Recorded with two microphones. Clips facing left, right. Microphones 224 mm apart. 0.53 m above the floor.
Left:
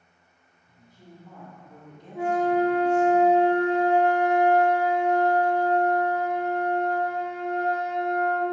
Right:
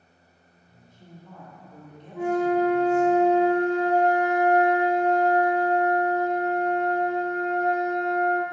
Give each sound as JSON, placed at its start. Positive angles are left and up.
{"t": 0.7, "sound": "a woman speaking", "side_deg": 40, "distance_m": 1.7}
{"t": 2.1, "sound": "a flute", "side_deg": 30, "distance_m": 1.1}